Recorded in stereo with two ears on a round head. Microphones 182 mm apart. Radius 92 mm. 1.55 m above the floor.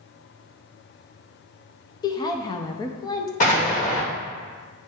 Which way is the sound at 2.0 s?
20° left (ahead or behind).